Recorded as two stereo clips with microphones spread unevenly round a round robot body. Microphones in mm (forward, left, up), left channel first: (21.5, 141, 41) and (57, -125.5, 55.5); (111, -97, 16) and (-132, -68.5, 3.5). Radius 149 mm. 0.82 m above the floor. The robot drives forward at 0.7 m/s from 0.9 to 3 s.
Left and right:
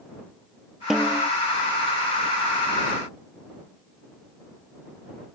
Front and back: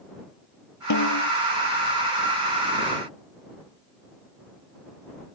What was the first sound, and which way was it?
A snare drum, 5° left.